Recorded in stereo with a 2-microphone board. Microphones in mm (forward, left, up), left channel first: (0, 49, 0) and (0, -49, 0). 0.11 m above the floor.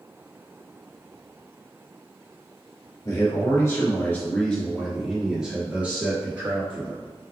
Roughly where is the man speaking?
Left.